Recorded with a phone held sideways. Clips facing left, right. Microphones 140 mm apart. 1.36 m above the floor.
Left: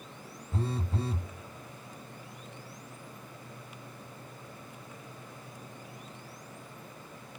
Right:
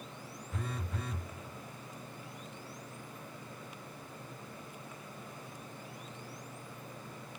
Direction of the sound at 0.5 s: 30° left (ahead or behind).